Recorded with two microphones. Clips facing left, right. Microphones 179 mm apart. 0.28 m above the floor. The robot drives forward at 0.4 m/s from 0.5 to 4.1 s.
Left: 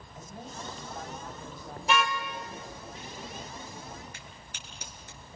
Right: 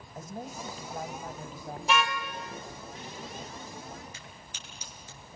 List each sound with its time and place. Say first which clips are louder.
0.1 s a woman speaking: right 4 dB; 40° right (ahead or behind), 1.7 m
1.9 s a car horn: even; centre (ahead or behind), 3 m
4.1 s a crack: even; 60° left (ahead or behind), 5.5 m